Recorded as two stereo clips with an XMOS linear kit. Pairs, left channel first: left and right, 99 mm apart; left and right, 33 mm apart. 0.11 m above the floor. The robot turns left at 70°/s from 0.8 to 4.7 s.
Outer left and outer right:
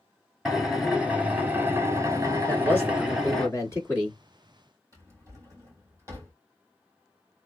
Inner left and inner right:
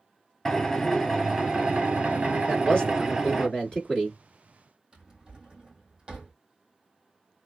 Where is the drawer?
30° right (ahead or behind), 1.7 m.